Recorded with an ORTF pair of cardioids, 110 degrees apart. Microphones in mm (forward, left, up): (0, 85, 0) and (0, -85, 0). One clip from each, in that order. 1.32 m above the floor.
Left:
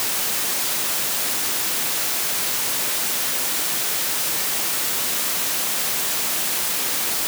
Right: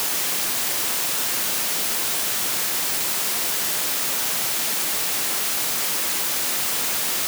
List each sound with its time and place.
Only background noise.